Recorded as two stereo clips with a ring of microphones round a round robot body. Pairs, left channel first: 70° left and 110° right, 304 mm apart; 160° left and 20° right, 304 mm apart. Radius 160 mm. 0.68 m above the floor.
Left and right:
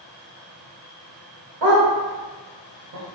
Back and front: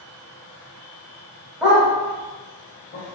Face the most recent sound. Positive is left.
turn(degrees=-155)